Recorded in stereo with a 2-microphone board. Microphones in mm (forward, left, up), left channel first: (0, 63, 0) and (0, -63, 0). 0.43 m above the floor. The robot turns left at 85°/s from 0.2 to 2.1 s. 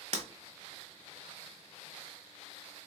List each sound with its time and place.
0.1 s breaking glass: 55° right (ahead or behind), 0.9 m